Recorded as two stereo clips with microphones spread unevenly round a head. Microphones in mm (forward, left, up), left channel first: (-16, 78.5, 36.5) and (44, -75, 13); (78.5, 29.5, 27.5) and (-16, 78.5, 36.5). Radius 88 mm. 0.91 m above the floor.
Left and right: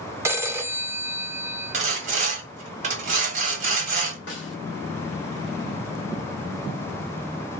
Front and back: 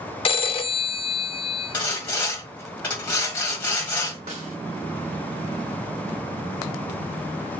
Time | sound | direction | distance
0.2 | a phone ringing | 5° left | 0.7 m
1.7 | sawing | 95° right | 1.5 m
4.3 | a snare drum | 135° left | 2 m